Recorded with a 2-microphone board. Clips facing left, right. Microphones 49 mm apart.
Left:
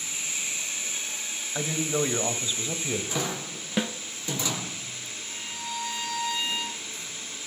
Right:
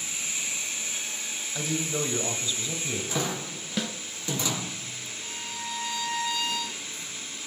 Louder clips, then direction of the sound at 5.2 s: Right 1 dB; 55° right (ahead or behind).